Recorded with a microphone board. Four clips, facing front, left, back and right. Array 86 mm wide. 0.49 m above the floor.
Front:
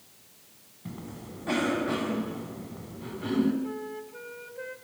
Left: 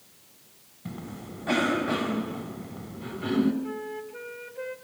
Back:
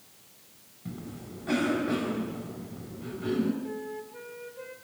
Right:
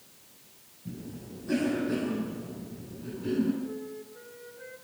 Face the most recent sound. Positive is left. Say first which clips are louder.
# left 3 dB, front 1 dB
turn(degrees=70)